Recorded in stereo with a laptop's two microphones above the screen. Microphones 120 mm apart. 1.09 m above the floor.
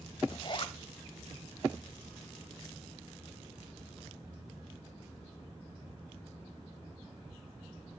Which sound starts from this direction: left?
A zipper, at 0.3 s.